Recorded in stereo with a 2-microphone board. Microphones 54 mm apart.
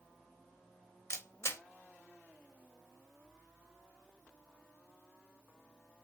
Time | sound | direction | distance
1.1 | a camera shutter | 50° left (ahead or behind) | 0.7 m